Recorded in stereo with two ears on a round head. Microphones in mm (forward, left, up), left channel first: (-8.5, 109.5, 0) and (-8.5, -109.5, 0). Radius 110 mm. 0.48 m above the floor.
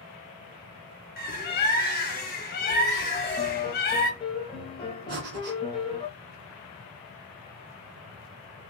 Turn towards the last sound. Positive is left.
turn(degrees=-45)  # may be behind; listen again after turning